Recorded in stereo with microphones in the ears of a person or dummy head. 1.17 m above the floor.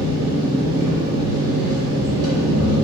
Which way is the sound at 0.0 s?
55° right (ahead or behind).